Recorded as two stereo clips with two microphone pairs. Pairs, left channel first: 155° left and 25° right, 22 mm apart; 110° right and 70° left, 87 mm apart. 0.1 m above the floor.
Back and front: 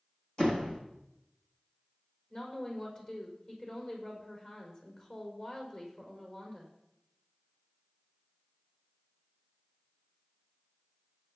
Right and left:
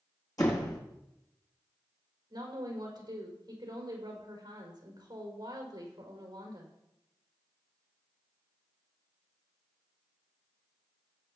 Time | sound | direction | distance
0.4 | a door slam | 155° right | 3.5 m
2.3 | a woman speaking | 110° left | 5 m